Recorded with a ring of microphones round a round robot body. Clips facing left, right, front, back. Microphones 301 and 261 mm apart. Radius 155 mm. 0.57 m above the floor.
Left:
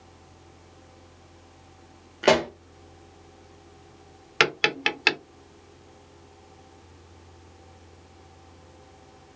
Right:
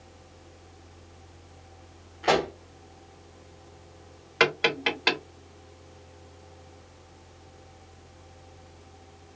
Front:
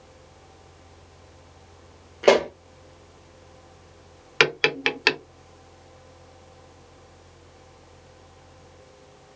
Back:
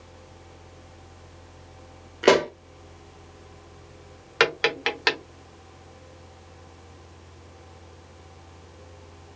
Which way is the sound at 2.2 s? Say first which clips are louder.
Left 4 dB, front 1 dB; 110° left.